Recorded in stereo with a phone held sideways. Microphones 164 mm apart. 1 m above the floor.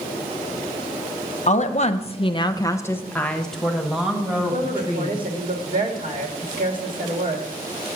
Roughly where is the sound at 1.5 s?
Left.